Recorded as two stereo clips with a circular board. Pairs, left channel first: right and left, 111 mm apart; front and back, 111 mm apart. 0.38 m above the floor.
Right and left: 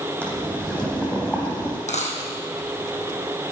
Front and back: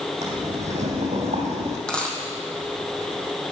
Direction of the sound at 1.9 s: 85° right.